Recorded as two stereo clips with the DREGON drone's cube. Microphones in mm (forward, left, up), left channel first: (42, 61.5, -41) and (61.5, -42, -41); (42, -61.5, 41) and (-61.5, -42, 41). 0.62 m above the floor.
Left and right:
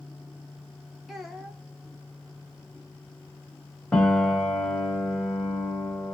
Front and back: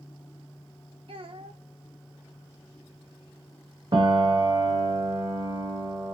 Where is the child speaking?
170° right, 1.0 m.